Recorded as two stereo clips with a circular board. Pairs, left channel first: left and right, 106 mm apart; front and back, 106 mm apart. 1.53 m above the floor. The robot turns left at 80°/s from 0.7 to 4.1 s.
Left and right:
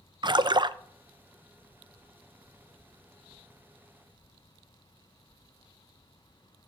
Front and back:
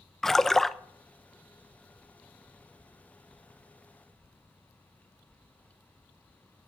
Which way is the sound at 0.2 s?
85° right.